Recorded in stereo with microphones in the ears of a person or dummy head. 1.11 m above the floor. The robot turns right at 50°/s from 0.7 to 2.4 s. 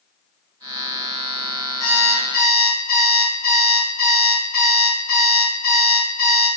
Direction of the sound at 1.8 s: 65° left (ahead or behind).